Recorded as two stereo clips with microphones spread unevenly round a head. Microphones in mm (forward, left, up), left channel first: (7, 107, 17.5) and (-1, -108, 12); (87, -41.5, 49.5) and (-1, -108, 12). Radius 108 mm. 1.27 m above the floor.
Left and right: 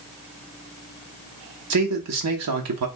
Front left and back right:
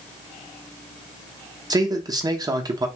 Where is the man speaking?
90° right, 0.9 m.